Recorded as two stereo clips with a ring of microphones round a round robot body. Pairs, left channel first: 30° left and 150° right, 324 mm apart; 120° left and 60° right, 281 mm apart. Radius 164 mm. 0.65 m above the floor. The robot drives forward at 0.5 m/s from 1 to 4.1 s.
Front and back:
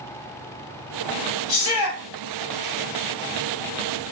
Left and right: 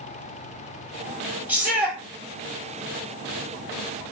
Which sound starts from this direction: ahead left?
A shout, at 1.5 s.